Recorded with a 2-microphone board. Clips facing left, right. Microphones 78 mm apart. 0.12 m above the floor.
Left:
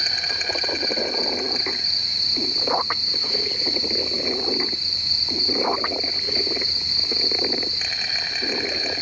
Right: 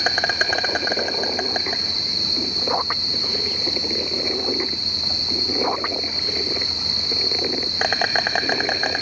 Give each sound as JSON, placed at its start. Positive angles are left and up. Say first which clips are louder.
{"t": 0.0, "sound": "an insect", "louder": "right 9 dB", "side_deg": -60, "distance_m": 1.0}